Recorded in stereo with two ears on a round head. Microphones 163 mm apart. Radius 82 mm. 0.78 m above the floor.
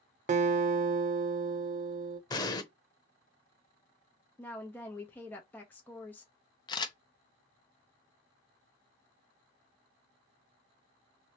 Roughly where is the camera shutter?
Left.